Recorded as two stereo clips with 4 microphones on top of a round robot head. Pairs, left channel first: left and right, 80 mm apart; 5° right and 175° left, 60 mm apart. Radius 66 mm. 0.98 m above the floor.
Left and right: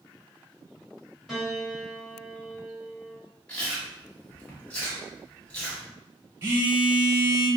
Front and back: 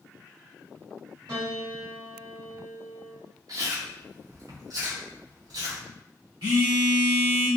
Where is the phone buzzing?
140° right, 1.2 m.